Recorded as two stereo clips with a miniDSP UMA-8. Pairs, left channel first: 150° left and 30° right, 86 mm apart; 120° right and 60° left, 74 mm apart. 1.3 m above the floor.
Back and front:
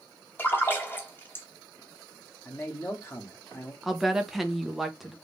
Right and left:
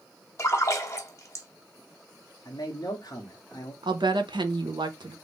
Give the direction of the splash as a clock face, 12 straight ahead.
5 o'clock.